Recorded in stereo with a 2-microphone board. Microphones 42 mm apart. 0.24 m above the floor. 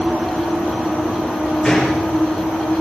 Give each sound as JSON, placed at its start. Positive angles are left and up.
{"t": 1.6, "sound": "a gunshot", "side_deg": 10, "distance_m": 9.5}